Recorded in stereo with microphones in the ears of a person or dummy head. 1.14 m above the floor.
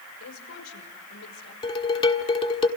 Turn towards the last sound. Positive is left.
turn(degrees=25)  # may be behind; listen again after turning